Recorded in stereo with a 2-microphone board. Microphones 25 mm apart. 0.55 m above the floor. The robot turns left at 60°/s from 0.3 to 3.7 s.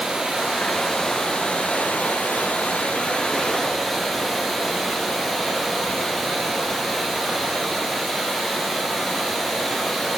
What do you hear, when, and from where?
0.0 s running water: 145° right, 4.5 m; by 10.2 s 10° left, 4.5 m